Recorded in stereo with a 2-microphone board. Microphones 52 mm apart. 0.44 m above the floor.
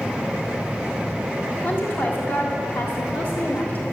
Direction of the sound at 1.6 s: 55° left (ahead or behind).